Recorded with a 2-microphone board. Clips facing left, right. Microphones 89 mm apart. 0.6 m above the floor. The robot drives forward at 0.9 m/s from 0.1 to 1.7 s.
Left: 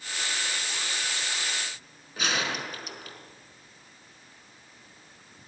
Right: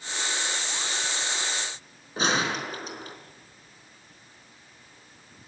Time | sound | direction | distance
2.2 | a gunshot | 35° right (ahead or behind) | 4 m